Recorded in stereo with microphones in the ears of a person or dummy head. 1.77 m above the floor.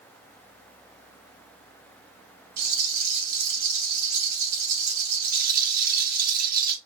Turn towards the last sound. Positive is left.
turn(degrees=-45)  # may be behind; listen again after turning